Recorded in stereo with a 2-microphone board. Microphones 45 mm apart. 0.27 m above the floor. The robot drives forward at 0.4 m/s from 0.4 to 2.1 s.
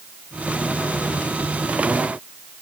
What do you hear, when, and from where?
Only background noise.